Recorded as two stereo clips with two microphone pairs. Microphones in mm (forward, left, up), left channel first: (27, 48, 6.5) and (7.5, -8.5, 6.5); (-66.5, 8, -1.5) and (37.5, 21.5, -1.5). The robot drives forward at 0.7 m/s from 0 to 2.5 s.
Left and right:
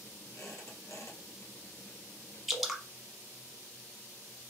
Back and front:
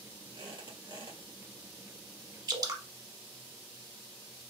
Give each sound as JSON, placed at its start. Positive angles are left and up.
{"t": 0.3, "sound": "a squeak", "azimuth_deg": 40, "distance_m": 2.5}
{"t": 2.5, "sound": "dripping", "azimuth_deg": -20, "distance_m": 0.9}